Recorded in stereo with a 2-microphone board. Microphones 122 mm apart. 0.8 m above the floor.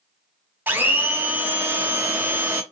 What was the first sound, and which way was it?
A blender, 15° right (ahead or behind).